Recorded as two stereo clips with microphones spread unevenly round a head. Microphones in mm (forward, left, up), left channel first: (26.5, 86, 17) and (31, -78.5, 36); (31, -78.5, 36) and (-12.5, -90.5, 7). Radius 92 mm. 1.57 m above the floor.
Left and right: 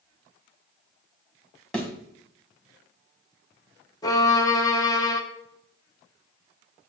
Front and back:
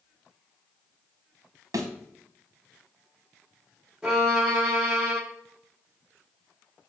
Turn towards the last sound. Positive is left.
turn(degrees=30)